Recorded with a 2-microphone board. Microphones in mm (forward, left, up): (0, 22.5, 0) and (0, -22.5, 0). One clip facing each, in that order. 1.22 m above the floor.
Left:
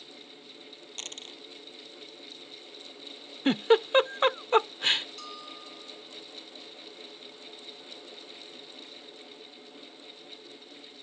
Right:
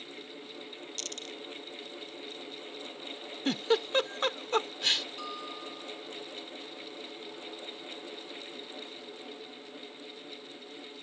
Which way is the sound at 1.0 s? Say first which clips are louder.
Left 1 dB; 30° left (ahead or behind).